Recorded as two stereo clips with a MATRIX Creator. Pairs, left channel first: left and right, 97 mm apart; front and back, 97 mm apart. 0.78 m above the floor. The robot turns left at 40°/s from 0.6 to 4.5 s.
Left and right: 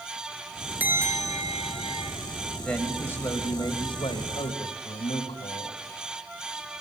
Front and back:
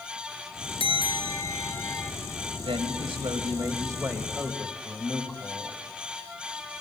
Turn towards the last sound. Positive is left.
turn(degrees=100)